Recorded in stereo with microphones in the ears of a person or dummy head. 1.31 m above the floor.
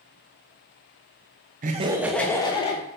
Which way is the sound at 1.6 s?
40° right (ahead or behind).